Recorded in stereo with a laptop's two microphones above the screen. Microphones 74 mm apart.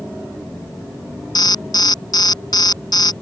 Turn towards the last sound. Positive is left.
turn(degrees=65)  # may be behind; listen again after turning